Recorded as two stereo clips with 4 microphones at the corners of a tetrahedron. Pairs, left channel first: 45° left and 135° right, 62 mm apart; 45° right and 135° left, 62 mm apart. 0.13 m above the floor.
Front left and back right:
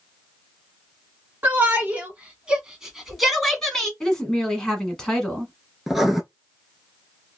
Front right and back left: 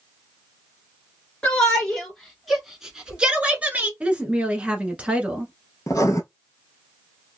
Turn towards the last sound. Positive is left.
turn(degrees=-50)